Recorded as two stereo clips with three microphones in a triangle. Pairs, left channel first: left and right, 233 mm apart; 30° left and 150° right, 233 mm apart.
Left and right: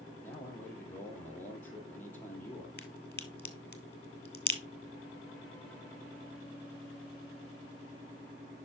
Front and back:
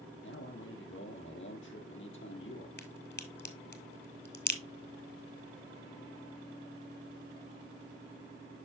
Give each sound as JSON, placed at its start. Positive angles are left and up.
{"t": 0.2, "sound": "a man speaking", "azimuth_deg": 10, "distance_m": 3.0}
{"t": 2.8, "sound": "a crack", "azimuth_deg": 60, "distance_m": 1.5}